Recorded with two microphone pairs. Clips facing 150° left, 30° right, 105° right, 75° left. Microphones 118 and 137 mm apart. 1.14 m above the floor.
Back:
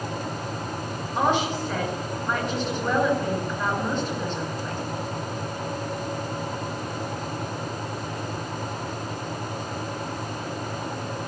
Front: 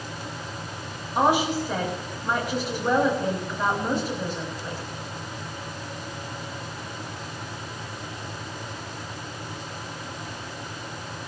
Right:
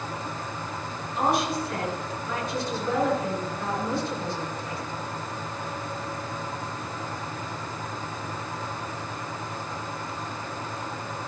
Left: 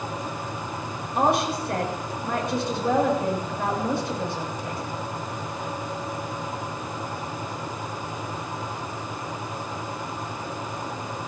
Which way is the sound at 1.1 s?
50° left.